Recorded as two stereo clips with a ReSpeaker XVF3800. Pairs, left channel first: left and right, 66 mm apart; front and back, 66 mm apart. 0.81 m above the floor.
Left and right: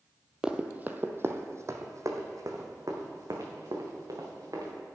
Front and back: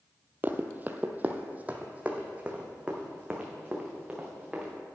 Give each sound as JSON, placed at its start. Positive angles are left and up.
{"t": 0.4, "sound": "running footsteps", "azimuth_deg": -160, "distance_m": 0.9}